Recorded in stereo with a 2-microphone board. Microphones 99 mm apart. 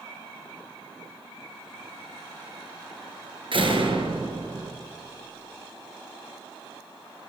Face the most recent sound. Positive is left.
turn(degrees=-60)  # may be behind; listen again after turning